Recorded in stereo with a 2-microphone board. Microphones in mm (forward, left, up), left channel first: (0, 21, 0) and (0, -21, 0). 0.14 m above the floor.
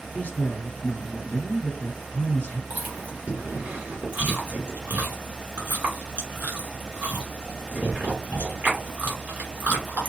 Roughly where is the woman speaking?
Left.